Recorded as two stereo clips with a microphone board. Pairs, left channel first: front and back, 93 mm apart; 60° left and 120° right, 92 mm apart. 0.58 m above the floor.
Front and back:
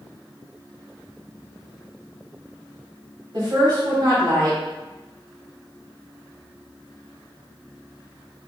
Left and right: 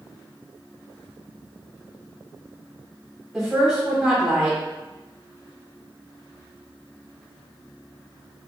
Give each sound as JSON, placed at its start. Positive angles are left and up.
{"t": 3.3, "sound": "a woman speaking", "azimuth_deg": 155, "distance_m": 1.9}